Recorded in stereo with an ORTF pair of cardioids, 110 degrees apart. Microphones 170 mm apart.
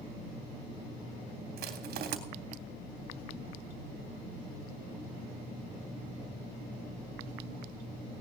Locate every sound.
1.6 s crushing: 60° right, 3 m